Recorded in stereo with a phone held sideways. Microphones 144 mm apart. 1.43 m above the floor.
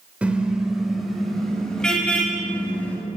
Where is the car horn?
10° right (ahead or behind), 3 m; by 3.0 s 10° left (ahead or behind), 6.5 m.